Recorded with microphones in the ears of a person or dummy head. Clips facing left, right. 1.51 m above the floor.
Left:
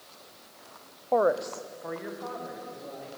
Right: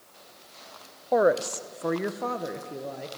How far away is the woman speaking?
About 0.5 m.